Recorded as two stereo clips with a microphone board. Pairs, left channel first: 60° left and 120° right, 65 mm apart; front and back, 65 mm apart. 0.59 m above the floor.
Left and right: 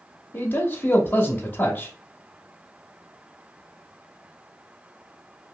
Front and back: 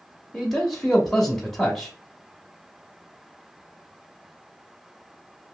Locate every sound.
0.3 s a man speaking: 80° left, 0.8 m